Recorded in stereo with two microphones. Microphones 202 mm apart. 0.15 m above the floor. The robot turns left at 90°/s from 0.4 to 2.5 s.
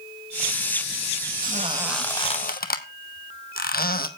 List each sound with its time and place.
1.4 s a squeak: 50° right (ahead or behind), 1.0 m; by 4.1 s 50° left (ahead or behind), 1.0 m